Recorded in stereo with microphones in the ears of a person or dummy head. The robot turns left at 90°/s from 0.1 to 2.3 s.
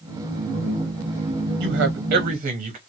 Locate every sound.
1.6 s a man speaking: 75° right, 1.1 m; by 2.8 s 135° right, 1.1 m